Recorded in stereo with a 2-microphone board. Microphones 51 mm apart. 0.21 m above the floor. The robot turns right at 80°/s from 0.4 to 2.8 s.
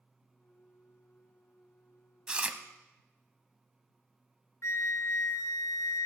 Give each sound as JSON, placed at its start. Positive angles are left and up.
{"t": 2.3, "sound": "chewing", "side_deg": -20, "distance_m": 0.7}
{"t": 4.6, "sound": "a flute", "side_deg": 70, "distance_m": 1.0}